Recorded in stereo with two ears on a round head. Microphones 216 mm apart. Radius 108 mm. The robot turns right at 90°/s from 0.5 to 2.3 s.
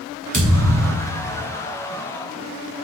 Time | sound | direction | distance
0.3 | a thud | 120° right | 1.6 m